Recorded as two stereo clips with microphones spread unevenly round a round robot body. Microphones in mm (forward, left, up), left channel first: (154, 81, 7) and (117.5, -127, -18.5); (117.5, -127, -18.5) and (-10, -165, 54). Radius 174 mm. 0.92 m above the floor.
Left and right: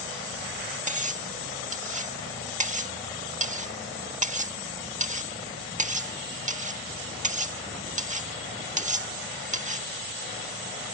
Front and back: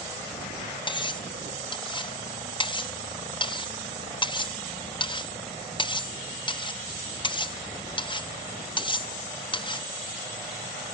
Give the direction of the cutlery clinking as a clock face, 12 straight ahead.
1 o'clock.